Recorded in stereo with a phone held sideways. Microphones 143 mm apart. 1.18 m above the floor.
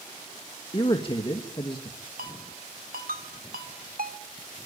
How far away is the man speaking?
About 1.7 m.